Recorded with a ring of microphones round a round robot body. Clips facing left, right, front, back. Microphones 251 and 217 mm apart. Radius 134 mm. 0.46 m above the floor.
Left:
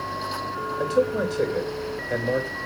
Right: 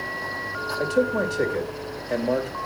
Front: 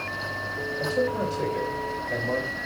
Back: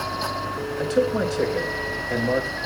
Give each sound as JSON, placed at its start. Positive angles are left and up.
{"t": 0.8, "sound": "a man speaking", "azimuth_deg": 175, "distance_m": 3.5}